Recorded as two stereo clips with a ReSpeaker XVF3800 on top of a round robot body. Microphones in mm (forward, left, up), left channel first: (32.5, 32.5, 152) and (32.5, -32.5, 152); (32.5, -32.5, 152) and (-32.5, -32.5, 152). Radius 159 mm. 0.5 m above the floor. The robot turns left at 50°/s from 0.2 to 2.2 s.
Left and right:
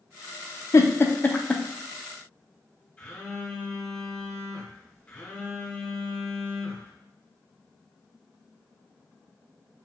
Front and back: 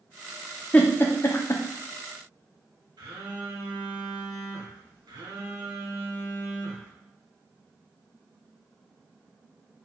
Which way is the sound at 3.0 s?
160° left.